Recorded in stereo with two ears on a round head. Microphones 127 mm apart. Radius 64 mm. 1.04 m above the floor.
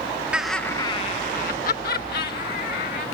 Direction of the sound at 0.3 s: 10° right (ahead or behind).